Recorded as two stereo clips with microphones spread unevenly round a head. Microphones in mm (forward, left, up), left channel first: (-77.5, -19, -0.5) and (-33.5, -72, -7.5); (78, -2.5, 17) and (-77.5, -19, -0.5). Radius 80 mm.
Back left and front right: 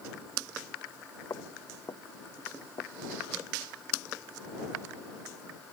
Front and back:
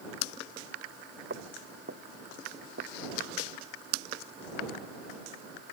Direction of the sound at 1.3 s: 160° left.